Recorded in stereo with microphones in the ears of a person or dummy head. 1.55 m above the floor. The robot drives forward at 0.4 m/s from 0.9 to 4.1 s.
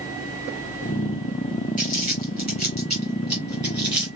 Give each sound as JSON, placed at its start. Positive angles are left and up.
{"t": 1.8, "sound": "crumpling", "side_deg": -10, "distance_m": 4.5}